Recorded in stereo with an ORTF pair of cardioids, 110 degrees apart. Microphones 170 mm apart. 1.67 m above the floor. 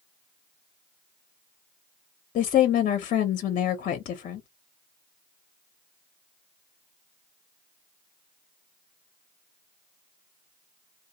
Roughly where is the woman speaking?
Ahead left.